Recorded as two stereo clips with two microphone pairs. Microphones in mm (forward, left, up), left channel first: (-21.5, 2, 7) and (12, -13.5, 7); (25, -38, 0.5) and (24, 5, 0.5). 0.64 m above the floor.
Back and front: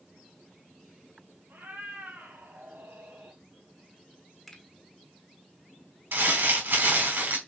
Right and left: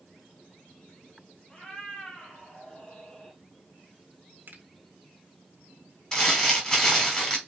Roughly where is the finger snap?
Left.